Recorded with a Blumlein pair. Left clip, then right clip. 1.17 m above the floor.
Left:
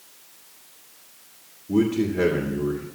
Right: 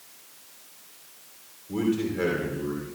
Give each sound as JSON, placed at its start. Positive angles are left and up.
{"t": 1.7, "sound": "a man speaking", "azimuth_deg": 35, "distance_m": 2.0}